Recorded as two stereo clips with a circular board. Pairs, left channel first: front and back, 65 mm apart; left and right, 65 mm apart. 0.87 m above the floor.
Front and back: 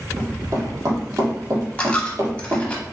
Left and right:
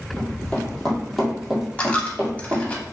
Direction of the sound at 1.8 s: 50° left.